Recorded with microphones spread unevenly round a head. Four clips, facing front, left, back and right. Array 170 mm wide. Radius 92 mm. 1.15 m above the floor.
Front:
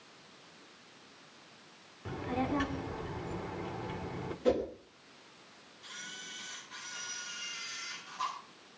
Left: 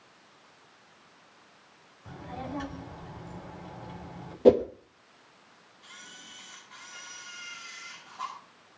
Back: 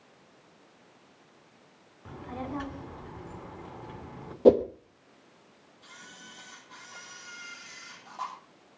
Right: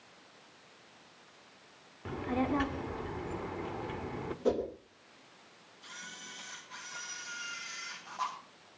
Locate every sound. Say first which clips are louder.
2.0 s a child speaking: right 7 dB, front 4 dB; 65° right, 3 m
4.5 s a whoosh: left 12 dB, back 11 dB; 145° left, 1.1 m
5.8 s a camera shutter: right 2 dB, front 1 dB; 160° right, 8 m